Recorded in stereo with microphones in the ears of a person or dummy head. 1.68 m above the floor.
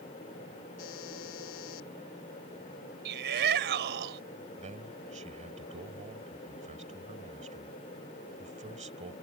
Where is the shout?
60° right (ahead or behind).